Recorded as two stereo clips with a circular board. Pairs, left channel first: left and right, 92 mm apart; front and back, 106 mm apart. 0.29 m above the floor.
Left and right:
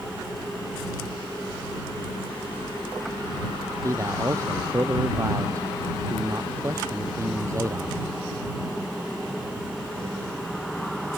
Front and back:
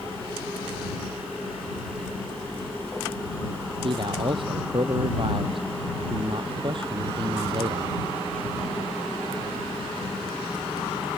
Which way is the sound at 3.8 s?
145° right.